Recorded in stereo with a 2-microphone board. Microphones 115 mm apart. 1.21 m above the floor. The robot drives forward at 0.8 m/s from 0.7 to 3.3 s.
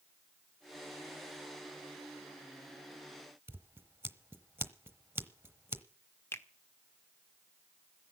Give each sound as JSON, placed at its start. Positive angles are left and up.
{"t": 3.5, "sound": "scissors", "side_deg": -20, "distance_m": 1.2}
{"t": 6.3, "sound": "a finger snap", "side_deg": 20, "distance_m": 1.5}